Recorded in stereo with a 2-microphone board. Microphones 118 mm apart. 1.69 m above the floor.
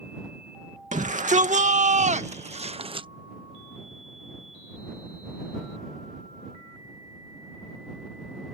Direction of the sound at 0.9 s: 85° right.